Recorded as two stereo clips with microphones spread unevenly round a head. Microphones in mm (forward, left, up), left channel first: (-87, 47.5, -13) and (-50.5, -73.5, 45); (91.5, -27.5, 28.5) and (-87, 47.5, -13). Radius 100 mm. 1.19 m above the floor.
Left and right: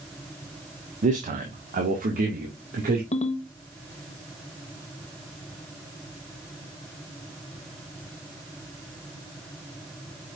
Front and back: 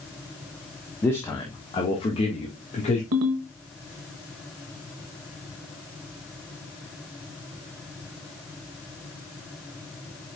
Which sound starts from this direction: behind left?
A ringtone, at 3.1 s.